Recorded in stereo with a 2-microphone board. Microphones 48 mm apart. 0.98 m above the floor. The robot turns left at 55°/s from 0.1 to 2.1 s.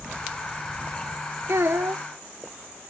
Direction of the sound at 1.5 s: 65° right.